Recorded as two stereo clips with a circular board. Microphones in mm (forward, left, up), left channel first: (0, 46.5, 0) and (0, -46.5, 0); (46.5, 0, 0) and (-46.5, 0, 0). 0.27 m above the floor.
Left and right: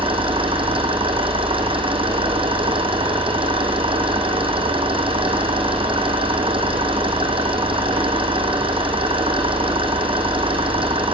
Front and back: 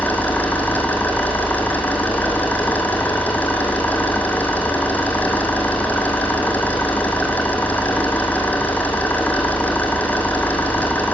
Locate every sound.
0.0 s an engine running: 70° right, 4 m